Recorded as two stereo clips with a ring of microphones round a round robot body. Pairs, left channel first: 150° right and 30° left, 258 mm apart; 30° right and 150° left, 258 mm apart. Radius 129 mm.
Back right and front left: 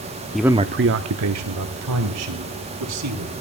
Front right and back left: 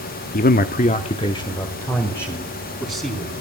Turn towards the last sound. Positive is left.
turn(degrees=55)